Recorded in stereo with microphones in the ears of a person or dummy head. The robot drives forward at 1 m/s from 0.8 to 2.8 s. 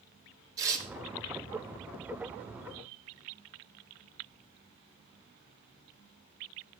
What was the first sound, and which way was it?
Tearing paper, 20° right (ahead or behind).